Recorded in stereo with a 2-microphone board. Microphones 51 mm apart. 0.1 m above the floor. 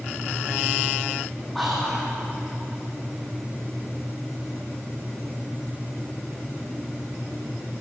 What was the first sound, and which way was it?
Whispering, centre (ahead or behind).